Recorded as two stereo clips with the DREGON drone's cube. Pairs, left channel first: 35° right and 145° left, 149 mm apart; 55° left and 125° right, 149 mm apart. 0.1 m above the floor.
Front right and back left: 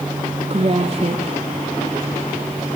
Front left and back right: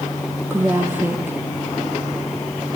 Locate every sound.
0.5 s a woman speaking: 165° left, 1.9 m